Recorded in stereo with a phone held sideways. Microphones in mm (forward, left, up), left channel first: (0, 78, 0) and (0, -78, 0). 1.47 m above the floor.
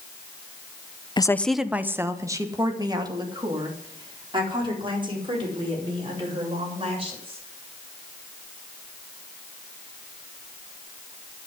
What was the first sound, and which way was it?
A woman speaking, 30° left (ahead or behind).